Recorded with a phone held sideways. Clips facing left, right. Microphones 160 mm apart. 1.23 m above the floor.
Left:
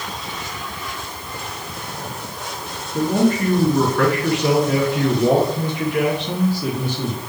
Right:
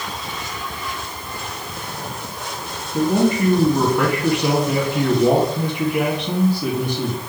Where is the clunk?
No clunk in this recording.